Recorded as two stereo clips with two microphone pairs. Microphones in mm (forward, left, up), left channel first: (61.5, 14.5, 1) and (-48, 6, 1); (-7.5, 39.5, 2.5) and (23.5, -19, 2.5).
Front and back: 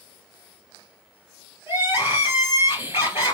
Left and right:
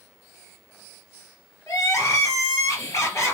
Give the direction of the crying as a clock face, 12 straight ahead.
8 o'clock.